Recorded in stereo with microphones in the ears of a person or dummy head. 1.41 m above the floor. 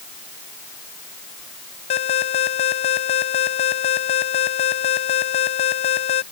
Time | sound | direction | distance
1.9 | an alarm | 40° left (ahead or behind) | ?